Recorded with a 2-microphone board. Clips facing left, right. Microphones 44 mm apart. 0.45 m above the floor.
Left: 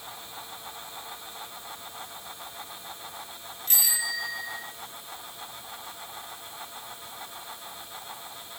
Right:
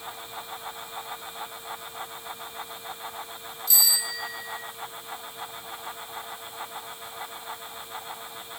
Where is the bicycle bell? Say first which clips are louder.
Right 1 dB; 50° left (ahead or behind), 7 m.